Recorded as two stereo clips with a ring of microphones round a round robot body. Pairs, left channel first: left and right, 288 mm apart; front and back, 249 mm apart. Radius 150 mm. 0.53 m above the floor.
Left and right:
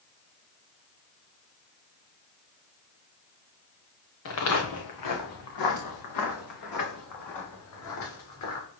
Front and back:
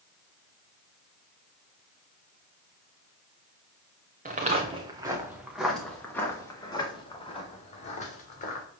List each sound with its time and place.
4.2 s footsteps: 125° left, 2.5 m; by 8.6 s 55° left, 4.5 m